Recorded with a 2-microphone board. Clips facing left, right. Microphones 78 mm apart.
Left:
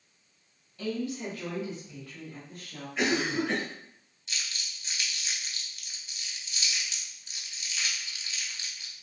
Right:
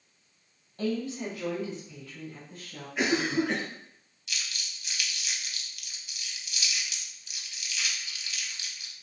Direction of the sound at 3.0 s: 10° right (ahead or behind).